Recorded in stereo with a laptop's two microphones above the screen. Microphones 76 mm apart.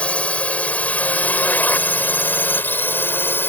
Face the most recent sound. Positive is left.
turn(degrees=30)  # may be behind; listen again after turning